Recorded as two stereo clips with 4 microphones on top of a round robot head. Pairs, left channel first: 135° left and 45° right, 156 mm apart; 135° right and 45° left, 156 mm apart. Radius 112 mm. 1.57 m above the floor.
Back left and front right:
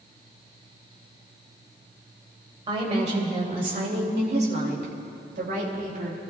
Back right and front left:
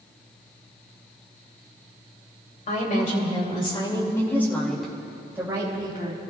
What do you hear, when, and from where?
2.7 s a woman speaking: 100° right, 3.5 m; by 6.2 s 15° right, 3.5 m